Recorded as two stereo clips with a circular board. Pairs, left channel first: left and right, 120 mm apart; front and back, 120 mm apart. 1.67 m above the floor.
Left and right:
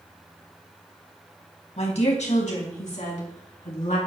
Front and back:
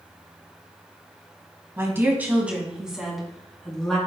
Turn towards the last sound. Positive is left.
turn(degrees=85)